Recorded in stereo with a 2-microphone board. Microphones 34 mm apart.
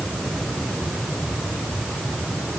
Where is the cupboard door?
I don't hear a cupboard door.